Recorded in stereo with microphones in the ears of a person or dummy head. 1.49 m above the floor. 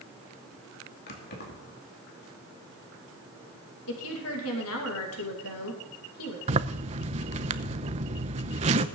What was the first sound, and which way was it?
Keys jangling, 60° left (ahead or behind).